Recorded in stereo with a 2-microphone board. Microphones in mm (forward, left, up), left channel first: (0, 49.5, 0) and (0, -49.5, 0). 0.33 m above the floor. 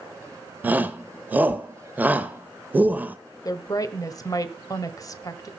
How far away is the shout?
About 1.1 m.